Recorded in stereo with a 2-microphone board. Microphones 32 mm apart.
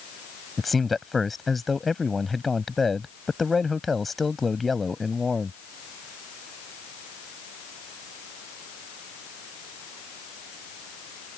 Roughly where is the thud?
I don't hear a thud.